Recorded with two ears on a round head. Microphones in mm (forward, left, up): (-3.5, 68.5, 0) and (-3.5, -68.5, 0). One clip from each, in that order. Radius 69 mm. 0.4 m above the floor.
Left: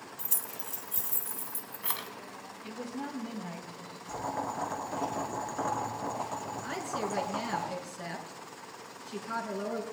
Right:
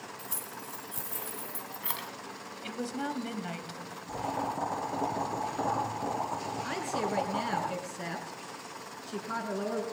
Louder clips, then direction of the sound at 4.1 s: Right 1 dB; 40° left (ahead or behind).